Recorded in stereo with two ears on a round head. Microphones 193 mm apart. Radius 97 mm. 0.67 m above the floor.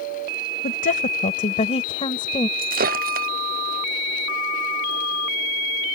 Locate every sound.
0.6 s a woman speaking: 45° left (ahead or behind); by 2.5 s 20° left (ahead or behind)
2.6 s breaking glass: 45° right (ahead or behind)